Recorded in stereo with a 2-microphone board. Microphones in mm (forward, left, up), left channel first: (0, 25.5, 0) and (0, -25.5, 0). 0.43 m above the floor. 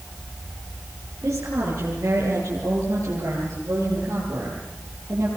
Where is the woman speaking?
75° right (ahead or behind), 8 m; by 5.3 s 55° right (ahead or behind), 11.5 m.